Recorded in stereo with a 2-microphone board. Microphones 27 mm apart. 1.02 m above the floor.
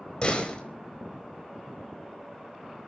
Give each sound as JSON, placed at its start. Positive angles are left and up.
{"t": 0.2, "sound": "a door slam", "side_deg": 40, "distance_m": 4.0}